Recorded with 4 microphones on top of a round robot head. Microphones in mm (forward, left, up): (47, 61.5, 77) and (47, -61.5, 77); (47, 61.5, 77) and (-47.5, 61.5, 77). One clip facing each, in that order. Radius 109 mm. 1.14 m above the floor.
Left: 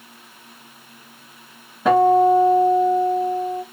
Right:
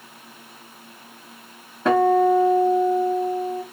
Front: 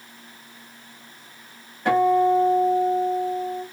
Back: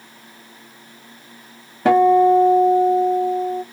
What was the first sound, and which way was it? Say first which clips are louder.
A guitar: left 3 dB, back 6 dB; straight behind.